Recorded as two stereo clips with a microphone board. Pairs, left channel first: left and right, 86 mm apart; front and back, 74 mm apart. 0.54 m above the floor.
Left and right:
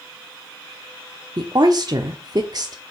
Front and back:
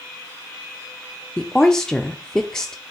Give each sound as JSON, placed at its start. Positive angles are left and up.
{"t": 1.4, "sound": "a woman speaking", "azimuth_deg": -80, "distance_m": 0.9}